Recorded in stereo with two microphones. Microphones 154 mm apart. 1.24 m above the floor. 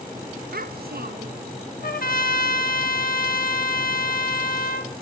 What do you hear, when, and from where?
0.5 s a child speaking: 75° right (ahead or behind), 0.9 m
1.8 s a trumpet: 70° left (ahead or behind), 1.6 m